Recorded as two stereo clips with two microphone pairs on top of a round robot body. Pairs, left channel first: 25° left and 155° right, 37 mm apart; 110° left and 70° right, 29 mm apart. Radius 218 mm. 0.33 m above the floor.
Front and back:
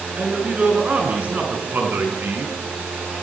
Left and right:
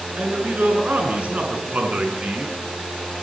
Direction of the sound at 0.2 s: 95° right.